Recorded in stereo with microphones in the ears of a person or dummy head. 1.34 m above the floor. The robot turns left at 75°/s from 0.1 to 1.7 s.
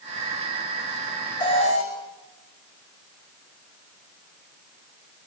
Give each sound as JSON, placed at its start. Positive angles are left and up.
{"t": 1.4, "sound": "an alarm", "side_deg": 20, "distance_m": 6.0}